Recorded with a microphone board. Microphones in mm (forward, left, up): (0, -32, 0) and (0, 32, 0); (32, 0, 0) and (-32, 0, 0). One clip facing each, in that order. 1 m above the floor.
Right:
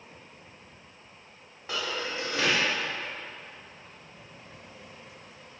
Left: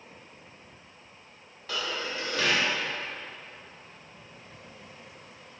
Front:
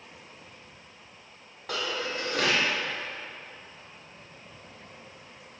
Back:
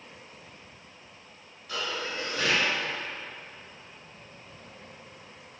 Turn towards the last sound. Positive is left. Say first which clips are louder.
# even, front 2 dB
turn(degrees=-20)